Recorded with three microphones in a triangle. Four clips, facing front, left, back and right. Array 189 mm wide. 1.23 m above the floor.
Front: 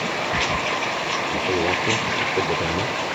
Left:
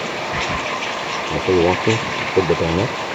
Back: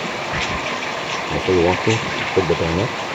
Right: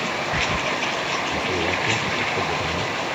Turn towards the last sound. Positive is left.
turn(degrees=120)